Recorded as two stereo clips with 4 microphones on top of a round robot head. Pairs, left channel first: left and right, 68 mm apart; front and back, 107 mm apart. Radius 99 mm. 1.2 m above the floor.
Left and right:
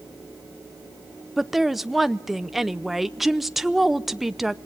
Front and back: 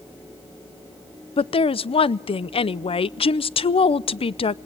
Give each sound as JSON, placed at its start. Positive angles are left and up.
{"t": 1.4, "sound": "a woman speaking", "azimuth_deg": -5, "distance_m": 0.6}